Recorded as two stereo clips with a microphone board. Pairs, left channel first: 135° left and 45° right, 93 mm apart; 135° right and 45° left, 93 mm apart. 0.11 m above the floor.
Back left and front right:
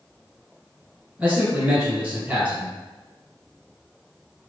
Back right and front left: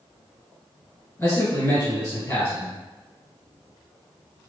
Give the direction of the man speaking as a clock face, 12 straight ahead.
3 o'clock.